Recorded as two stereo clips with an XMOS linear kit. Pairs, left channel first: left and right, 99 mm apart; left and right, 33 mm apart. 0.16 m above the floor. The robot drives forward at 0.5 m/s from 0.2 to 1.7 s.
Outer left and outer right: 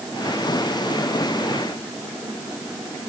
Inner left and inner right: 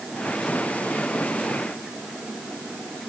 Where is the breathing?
I don't hear breathing.